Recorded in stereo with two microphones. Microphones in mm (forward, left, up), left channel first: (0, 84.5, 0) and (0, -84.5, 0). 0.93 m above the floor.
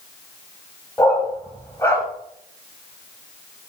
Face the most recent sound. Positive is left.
turn(degrees=15)  # may be behind; listen again after turning